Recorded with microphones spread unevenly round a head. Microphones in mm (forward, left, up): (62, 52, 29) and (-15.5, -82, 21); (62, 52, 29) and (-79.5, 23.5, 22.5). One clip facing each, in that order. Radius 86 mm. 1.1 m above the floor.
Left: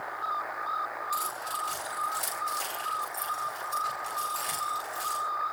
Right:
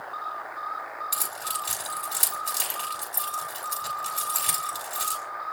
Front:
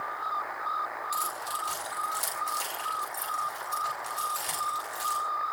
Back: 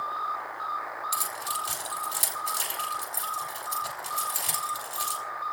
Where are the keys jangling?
115° right, 5.5 m.